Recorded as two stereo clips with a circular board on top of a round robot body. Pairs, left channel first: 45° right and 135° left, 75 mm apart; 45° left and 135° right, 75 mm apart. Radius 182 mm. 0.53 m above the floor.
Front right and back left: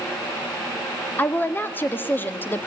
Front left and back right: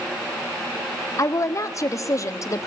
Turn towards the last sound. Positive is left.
turn(degrees=15)